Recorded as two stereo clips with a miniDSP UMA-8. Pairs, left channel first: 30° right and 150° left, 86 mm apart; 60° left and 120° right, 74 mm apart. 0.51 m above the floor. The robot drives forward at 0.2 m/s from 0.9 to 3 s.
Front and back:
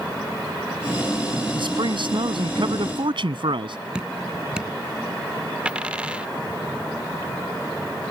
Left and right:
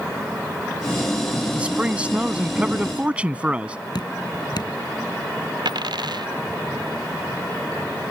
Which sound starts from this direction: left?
Dripping, at 4.0 s.